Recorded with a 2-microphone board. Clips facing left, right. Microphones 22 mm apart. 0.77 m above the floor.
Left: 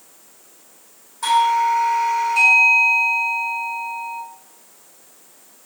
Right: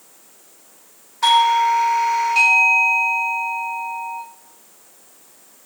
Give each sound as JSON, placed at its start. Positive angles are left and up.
{"t": 1.2, "sound": "a doorbell", "side_deg": -40, "distance_m": 1.7}